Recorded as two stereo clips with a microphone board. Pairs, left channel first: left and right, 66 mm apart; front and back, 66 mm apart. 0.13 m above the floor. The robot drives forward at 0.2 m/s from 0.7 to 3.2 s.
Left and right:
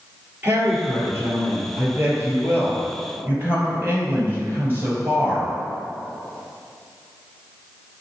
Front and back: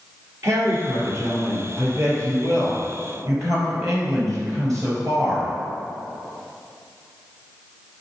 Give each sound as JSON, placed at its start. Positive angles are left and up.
{"t": 0.4, "sound": "a woman speaking", "azimuth_deg": -145, "distance_m": 2.5}